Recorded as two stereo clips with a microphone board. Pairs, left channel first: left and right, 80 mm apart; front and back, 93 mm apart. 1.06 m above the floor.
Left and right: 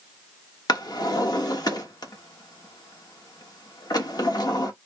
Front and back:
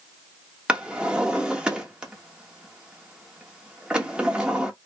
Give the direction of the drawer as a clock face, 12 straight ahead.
9 o'clock.